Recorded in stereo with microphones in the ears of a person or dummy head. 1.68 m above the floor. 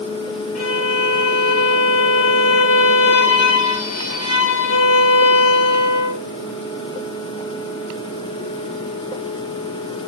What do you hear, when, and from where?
0.6 s a violin: 40° left (ahead or behind), 1.1 m